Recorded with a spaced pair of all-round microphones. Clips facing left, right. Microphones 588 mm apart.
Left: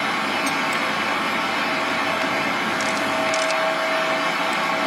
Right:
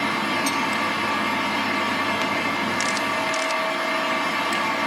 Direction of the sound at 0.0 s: 75° left (ahead or behind).